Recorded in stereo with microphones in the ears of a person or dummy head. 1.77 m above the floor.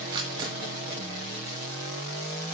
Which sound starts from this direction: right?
A camera shutter, at 0.1 s.